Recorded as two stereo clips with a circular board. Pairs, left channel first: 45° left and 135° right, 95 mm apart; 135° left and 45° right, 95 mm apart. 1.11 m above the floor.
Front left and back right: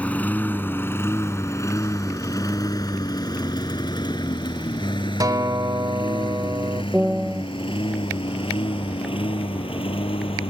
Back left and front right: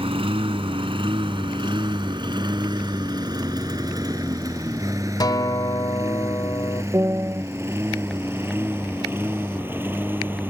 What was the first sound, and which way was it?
A lawn mower, 30° right.